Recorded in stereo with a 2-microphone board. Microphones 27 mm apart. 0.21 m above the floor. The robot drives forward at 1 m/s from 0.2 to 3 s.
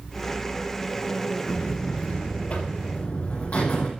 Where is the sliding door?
No sliding door in this recording.